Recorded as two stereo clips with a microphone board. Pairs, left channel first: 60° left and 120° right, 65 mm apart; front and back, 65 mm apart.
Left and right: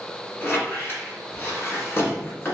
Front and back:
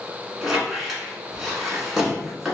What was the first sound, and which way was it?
A squeak, 100° left.